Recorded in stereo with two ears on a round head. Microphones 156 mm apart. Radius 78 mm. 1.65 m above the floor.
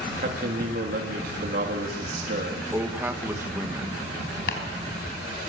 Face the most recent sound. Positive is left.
turn(degrees=70)  # may be behind; listen again after turning